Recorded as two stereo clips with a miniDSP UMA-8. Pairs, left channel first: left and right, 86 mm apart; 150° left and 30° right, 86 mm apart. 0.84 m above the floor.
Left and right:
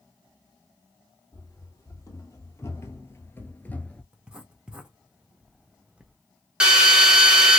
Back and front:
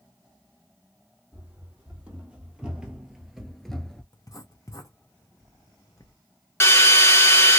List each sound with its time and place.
1.3 s running footsteps: 40° left, 1.8 m; by 4.0 s 110° left, 0.8 m
4.1 s writing: 165° right, 0.7 m
6.6 s a drill: 160° right, 1.1 m